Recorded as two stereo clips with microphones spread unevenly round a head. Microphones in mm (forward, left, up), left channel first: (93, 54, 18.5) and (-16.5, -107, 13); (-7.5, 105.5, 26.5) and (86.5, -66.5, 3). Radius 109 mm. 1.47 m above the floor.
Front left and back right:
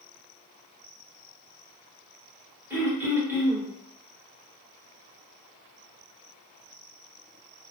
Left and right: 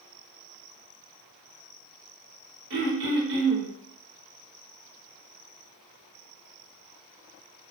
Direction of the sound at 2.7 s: 45° right.